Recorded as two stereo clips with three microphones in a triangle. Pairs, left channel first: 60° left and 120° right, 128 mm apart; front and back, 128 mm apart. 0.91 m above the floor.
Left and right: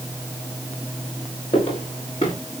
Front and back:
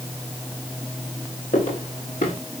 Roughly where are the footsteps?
Ahead.